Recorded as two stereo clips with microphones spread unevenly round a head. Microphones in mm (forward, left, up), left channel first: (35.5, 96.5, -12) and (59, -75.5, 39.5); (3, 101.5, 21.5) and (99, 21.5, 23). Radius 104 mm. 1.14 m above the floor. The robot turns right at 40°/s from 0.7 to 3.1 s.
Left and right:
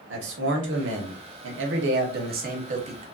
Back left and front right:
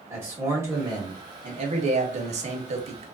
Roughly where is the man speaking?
Right.